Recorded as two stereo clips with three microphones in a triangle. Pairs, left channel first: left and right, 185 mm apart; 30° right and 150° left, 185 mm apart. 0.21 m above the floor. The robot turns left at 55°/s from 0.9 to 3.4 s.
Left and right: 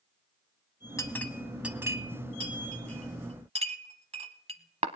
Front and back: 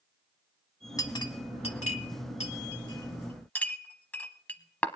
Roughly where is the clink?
Ahead left.